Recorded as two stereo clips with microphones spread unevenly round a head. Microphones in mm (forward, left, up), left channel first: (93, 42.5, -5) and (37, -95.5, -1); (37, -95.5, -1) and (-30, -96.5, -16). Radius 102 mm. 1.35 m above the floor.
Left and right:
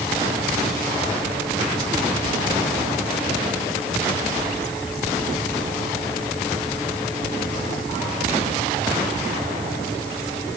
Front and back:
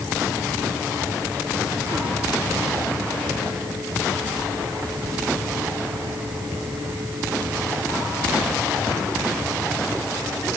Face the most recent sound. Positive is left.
No sound to turn to.